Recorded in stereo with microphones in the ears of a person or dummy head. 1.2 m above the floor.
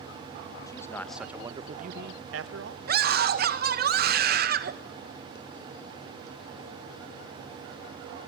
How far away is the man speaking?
About 1.3 m.